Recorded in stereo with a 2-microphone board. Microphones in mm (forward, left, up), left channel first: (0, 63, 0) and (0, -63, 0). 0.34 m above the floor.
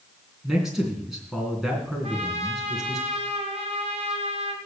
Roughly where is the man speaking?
Centre.